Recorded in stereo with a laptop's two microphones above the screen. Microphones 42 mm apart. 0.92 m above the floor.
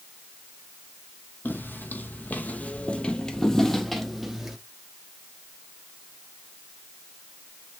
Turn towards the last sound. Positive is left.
turn(degrees=-10)  # may be behind; listen again after turning